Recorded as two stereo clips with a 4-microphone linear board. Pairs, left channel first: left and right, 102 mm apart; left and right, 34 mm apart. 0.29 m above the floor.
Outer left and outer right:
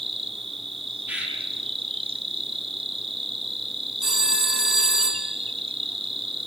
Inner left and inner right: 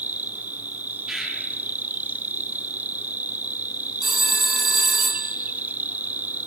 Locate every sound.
0.0 s an insect: 65° right (ahead or behind), 1.2 m
1.1 s a bird: 15° right (ahead or behind), 5.5 m
4.0 s a phone ringing: 5° right (ahead or behind), 3 m